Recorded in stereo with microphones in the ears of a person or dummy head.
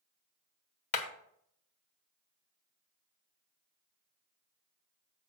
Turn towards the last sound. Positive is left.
turn(degrees=40)  # may be behind; listen again after turning